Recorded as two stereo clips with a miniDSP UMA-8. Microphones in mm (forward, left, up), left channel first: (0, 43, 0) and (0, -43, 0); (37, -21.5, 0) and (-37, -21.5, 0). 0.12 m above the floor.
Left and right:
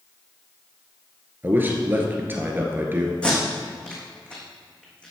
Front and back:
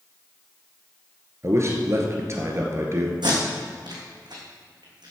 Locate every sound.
1.4 s a man speaking: 145° right, 2.0 m
3.2 s tape being pulled: 170° left, 3.5 m